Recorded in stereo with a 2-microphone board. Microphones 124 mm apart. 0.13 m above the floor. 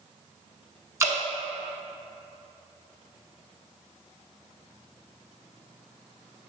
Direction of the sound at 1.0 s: 25° right (ahead or behind).